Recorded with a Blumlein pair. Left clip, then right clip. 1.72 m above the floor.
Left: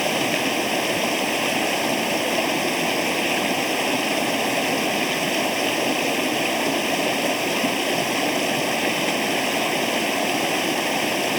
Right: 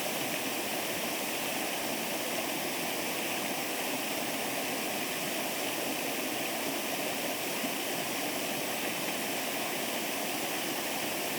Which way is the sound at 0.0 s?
60° left.